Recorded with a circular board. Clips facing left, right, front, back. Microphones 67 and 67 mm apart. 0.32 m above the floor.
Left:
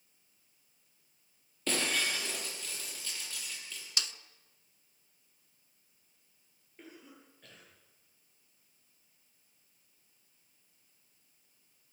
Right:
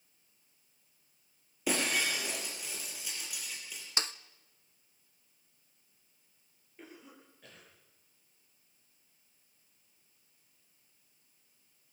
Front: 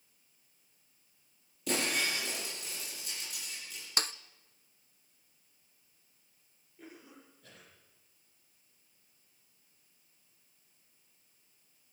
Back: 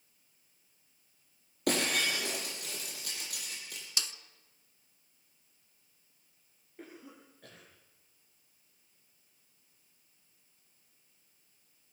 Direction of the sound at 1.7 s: 165° right.